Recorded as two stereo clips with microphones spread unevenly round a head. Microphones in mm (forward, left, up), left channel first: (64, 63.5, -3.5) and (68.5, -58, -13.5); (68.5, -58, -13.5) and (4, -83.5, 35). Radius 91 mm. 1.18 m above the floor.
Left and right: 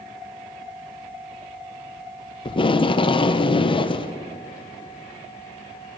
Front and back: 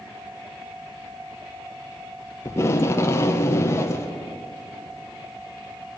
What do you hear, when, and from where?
2.5 s tape being pulled: 45° left, 0.6 m